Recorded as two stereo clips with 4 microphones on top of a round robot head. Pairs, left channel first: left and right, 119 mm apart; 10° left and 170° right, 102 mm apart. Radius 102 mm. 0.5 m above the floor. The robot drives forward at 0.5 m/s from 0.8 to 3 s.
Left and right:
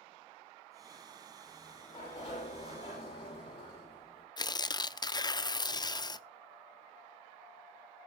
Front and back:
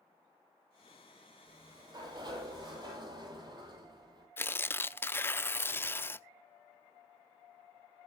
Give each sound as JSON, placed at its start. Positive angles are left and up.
{"t": 1.5, "sound": "a sliding door", "azimuth_deg": 140, "distance_m": 8.5}
{"t": 4.4, "sound": "tearing paper", "azimuth_deg": 65, "distance_m": 0.8}